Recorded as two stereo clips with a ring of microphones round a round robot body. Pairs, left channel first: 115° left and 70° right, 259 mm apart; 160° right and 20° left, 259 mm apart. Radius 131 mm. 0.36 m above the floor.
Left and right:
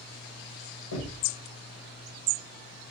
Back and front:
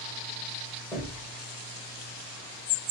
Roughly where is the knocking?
Left.